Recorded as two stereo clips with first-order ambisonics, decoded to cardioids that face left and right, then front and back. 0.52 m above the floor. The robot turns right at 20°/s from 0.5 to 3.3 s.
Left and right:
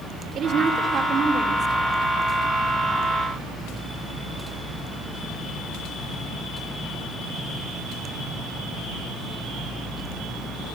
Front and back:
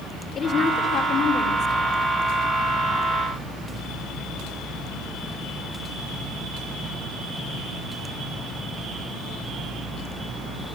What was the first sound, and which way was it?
A woman speaking, 50° right.